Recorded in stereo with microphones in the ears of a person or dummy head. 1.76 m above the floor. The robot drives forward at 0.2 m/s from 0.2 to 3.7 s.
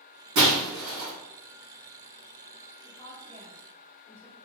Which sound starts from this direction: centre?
A woman speaking, at 2.8 s.